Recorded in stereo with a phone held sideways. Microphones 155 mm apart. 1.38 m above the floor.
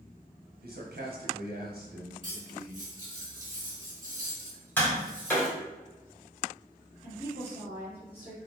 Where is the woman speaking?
85° left, 1.8 m.